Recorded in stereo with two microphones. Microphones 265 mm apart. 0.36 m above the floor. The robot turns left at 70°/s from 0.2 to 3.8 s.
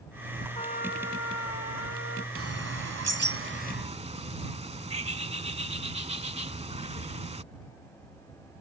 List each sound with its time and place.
0.6 s a trumpet: 160° left; by 2.2 s 40° left
2.4 s a bird: 55° right; by 7.4 s 155° right